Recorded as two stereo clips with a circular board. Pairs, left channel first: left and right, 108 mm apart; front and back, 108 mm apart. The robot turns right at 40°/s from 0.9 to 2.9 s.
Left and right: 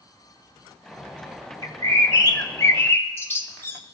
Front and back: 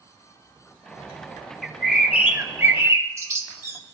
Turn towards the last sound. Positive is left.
turn(degrees=140)